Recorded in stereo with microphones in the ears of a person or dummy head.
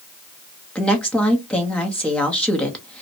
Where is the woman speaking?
10° left (ahead or behind), 0.8 m.